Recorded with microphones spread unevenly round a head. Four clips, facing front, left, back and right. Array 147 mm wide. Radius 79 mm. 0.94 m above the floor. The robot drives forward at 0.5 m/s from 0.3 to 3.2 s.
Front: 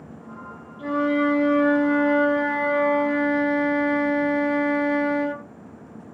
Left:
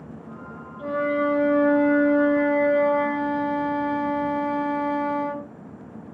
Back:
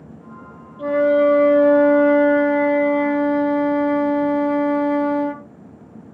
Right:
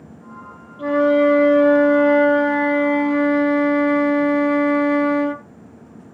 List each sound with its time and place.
0.8 s a flute: 155° right, 2.5 m; by 5.4 s 165° right, 3.5 m